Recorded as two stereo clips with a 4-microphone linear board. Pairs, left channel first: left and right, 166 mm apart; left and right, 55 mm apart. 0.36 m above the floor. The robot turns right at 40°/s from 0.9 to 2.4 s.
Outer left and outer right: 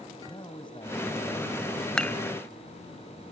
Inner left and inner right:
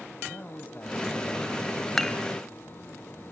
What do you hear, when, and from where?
0.2 s a man speaking: 30° left (ahead or behind), 2.5 m; by 1.5 s 50° left (ahead or behind), 2.5 m
2.0 s dishes clattering: 5° left (ahead or behind), 1.2 m; by 2.2 s 10° left (ahead or behind), 1.2 m